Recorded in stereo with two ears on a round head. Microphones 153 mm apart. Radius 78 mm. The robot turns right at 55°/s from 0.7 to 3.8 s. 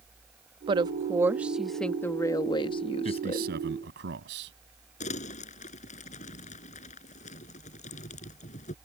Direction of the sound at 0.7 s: 55° right.